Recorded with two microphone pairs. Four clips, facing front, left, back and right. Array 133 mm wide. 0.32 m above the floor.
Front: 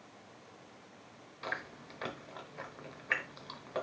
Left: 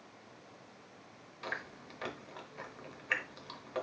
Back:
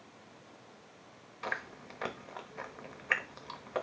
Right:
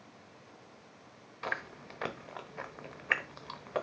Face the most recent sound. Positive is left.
turn(degrees=-115)